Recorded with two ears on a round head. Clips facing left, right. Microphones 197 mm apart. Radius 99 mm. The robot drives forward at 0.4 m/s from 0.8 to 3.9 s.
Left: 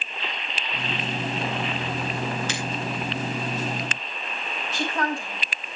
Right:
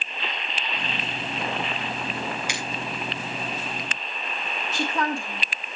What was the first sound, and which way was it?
A finger snap, 10° right (ahead or behind).